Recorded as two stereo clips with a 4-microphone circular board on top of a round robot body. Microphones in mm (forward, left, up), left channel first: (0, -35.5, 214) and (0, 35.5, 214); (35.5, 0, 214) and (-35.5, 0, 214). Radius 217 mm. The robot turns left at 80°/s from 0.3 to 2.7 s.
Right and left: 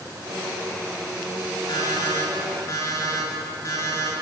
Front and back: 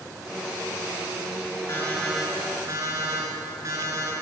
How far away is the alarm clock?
About 5 m.